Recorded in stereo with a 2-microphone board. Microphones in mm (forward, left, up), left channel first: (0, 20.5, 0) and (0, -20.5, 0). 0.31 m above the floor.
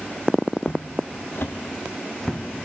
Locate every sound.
0.6 s footsteps: 70° left (ahead or behind), 1.2 m; by 2.4 s 5° left (ahead or behind), 1.1 m